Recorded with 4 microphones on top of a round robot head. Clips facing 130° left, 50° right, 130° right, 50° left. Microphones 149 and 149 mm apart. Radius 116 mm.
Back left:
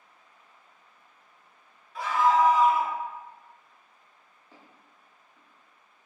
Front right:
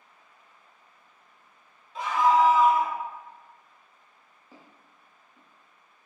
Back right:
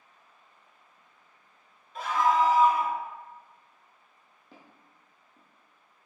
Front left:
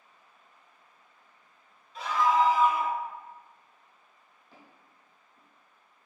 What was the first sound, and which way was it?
A scream, 115° right.